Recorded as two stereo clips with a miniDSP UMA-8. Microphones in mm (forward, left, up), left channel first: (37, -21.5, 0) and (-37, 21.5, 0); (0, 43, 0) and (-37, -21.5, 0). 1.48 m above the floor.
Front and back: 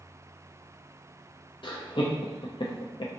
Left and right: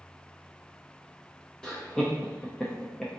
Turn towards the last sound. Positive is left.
turn(degrees=-20)